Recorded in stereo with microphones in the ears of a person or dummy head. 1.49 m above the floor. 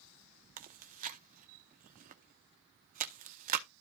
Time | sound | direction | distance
0.6 | chewing | 40° right (ahead or behind) | 0.7 m